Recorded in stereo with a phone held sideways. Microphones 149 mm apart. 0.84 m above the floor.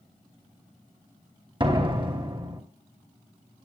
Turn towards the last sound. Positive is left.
turn(degrees=-35)  # may be behind; listen again after turning